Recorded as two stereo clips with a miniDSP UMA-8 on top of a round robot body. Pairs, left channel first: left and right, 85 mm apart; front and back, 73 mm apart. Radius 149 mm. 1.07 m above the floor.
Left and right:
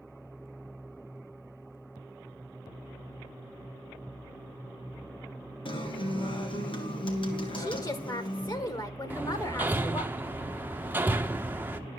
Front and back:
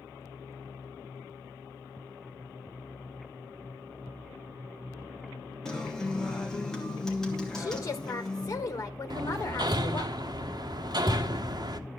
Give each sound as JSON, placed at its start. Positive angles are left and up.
{"t": 5.7, "sound": "a guitar", "azimuth_deg": 80, "distance_m": 2.5}
{"t": 7.6, "sound": "a woman speaking", "azimuth_deg": 45, "distance_m": 2.0}
{"t": 9.1, "sound": "hammering", "azimuth_deg": -160, "distance_m": 1.0}